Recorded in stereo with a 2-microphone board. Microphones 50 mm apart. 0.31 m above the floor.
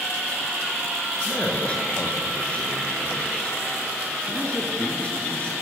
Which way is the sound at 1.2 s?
25° left (ahead or behind).